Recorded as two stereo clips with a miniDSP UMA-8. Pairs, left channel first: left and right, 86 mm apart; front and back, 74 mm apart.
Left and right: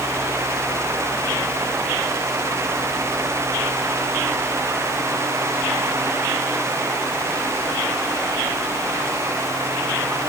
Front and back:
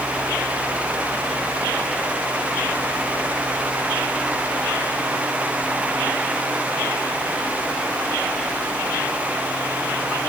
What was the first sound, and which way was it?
Only background noise.